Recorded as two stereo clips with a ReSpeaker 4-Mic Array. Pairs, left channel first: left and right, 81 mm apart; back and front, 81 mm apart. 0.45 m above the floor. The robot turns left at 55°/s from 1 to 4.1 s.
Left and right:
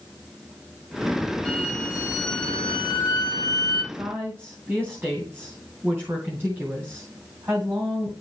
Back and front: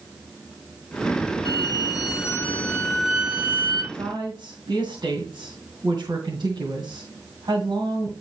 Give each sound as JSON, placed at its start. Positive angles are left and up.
{"t": 1.4, "sound": "a violin", "azimuth_deg": 170, "distance_m": 2.0}
{"t": 3.9, "sound": "a woman speaking", "azimuth_deg": -15, "distance_m": 2.5}